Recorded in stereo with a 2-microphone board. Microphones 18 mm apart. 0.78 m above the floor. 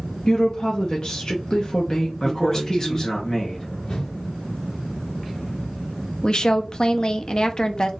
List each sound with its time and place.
0.3 s a woman speaking: 45° left (ahead or behind), 0.7 m
2.2 s a man speaking: 30° left (ahead or behind), 0.7 m
3.9 s a whoosh: 70° left (ahead or behind), 1.1 m
6.2 s a woman speaking: 45° left (ahead or behind), 0.5 m